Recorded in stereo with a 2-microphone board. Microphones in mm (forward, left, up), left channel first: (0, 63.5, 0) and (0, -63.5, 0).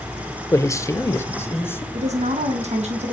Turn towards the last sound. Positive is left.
turn(degrees=-60)  # may be behind; listen again after turning